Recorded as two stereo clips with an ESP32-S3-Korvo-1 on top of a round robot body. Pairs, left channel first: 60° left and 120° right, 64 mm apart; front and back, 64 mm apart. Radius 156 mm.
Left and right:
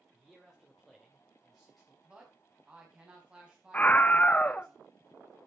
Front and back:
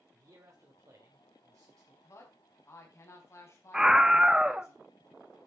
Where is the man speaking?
145° left, 2.5 m.